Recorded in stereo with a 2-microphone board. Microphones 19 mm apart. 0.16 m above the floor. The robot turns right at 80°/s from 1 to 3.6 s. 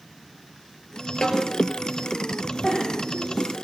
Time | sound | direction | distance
1.2 | a snare drum | 45° left (ahead or behind) | 3.5 m
2.6 | a giggle | 30° left (ahead or behind) | 8.5 m